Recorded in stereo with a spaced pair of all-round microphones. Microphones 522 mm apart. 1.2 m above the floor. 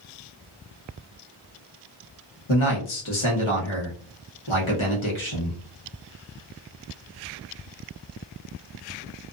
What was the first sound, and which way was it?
A man speaking, 60° left (ahead or behind).